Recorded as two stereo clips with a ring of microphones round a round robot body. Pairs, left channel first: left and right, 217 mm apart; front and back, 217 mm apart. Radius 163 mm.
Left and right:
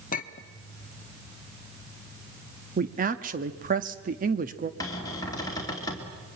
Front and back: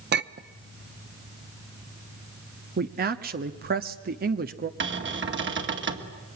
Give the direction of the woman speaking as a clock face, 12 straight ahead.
5 o'clock.